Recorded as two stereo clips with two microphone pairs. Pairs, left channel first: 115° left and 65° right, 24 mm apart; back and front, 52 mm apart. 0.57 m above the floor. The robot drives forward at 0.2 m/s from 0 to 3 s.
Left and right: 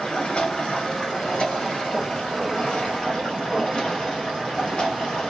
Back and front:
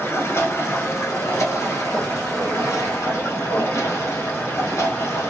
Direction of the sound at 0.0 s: 150° left.